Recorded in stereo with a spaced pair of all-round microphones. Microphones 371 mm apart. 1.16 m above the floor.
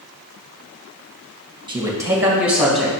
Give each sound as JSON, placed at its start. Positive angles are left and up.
{"t": 1.7, "sound": "a man speaking", "side_deg": -10, "distance_m": 1.5}